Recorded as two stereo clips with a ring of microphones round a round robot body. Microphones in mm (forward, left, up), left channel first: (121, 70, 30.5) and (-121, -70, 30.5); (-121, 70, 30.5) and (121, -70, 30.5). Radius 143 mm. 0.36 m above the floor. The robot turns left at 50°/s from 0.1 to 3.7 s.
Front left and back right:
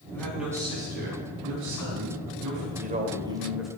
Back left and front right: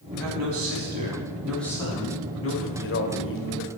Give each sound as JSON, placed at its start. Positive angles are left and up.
{"t": 0.1, "sound": "a man speaking", "azimuth_deg": -50, "distance_m": 4.0}
{"t": 2.8, "sound": "a man speaking", "azimuth_deg": 165, "distance_m": 1.8}